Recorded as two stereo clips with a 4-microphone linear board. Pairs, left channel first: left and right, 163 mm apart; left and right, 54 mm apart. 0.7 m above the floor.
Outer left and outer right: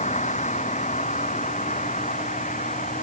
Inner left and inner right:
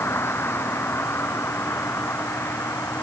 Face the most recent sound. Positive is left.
turn(degrees=50)  # may be behind; listen again after turning